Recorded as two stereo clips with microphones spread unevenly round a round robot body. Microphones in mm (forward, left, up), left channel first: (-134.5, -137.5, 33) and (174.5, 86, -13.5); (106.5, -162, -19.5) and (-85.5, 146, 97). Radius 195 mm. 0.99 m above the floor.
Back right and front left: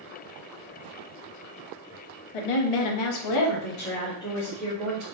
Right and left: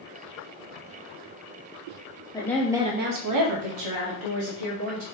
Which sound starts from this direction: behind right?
A woman speaking, at 2.3 s.